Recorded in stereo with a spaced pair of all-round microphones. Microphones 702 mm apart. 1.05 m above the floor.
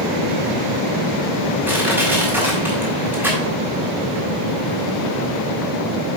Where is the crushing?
5° right (ahead or behind), 5.5 m.